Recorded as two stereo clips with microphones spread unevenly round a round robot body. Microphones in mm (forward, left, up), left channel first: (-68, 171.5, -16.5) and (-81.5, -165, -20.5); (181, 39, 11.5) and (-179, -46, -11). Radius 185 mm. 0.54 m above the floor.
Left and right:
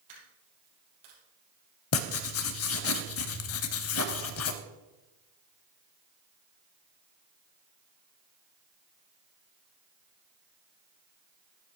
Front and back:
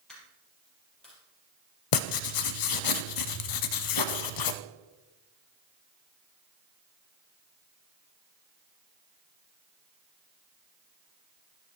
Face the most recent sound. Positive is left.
turn(degrees=40)